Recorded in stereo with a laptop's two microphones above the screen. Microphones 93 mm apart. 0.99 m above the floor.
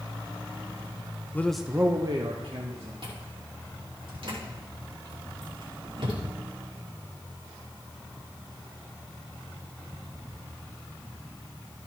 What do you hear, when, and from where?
1.3 s a man speaking: 25° left (ahead or behind), 0.7 m; by 2.9 s 70° right (ahead or behind), 1.8 m
3.0 s chewing: 65° right (ahead or behind), 2.5 m